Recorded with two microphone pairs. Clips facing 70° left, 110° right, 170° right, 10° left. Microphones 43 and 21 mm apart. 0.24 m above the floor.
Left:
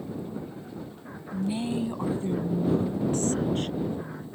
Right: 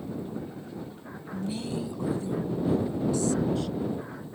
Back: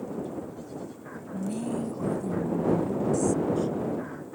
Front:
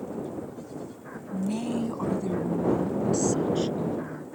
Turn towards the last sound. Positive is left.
turn(degrees=35)